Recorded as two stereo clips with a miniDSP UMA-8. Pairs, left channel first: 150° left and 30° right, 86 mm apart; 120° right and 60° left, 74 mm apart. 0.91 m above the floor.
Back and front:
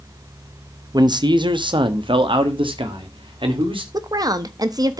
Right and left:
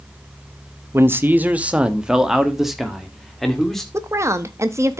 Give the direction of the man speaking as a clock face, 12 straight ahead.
12 o'clock.